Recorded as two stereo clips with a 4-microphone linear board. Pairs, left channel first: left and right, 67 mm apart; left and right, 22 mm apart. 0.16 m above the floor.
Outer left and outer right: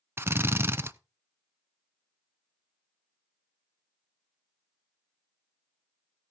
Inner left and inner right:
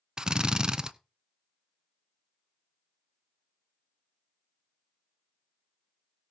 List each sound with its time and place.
0.2 s a drill: 35° right (ahead or behind), 0.6 m